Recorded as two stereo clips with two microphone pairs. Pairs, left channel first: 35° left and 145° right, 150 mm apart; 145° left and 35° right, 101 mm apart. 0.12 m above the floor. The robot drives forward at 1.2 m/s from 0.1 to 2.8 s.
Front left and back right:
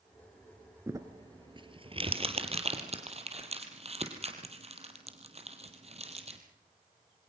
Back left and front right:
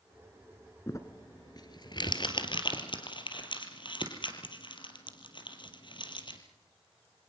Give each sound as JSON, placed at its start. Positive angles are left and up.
{"t": 0.9, "sound": "crumpling", "azimuth_deg": 165, "distance_m": 1.5}